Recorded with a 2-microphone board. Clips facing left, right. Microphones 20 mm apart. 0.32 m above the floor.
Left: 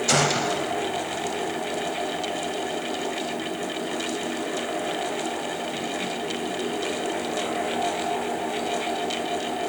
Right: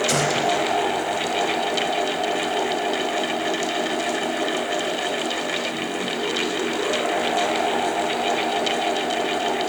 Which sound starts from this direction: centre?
A gunshot, at 0.1 s.